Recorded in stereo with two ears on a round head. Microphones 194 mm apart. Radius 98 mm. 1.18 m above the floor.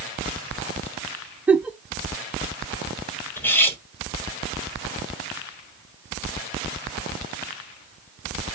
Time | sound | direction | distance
1.5 | a giggle | 5° right (ahead or behind) | 0.6 m
3.4 | cutlery clinking | 10° left (ahead or behind) | 1.0 m